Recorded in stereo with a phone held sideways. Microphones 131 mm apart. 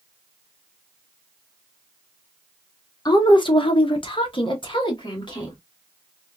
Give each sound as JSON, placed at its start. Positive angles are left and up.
{"t": 3.0, "sound": "a woman speaking", "side_deg": 35, "distance_m": 0.6}